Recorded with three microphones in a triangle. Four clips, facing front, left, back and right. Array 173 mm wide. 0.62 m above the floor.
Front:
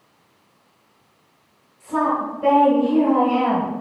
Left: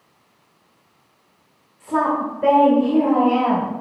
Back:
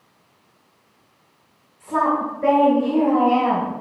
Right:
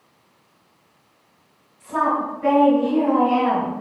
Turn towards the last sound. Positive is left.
turn(degrees=95)